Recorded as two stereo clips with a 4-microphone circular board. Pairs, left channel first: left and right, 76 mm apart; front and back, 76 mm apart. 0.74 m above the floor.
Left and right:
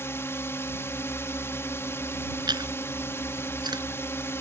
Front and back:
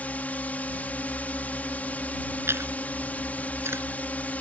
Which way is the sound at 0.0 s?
55° left.